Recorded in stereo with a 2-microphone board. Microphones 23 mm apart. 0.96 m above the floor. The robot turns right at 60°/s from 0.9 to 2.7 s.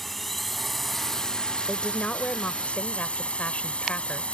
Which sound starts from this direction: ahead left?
A woman speaking, at 1.7 s.